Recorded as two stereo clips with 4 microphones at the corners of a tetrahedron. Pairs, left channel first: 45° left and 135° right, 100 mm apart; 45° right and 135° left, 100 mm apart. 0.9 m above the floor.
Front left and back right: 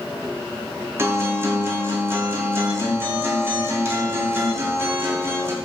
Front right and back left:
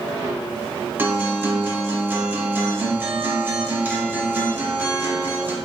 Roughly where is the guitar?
Behind.